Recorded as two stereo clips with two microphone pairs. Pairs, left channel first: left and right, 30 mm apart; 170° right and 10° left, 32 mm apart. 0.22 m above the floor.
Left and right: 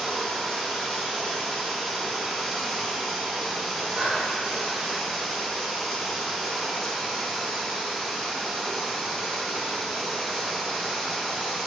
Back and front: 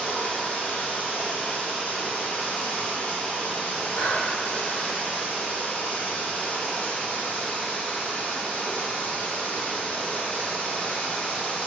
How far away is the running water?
About 3.5 m.